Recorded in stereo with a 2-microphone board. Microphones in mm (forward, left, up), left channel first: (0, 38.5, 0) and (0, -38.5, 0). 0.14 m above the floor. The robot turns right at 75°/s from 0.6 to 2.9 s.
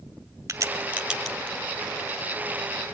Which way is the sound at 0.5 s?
40° right (ahead or behind).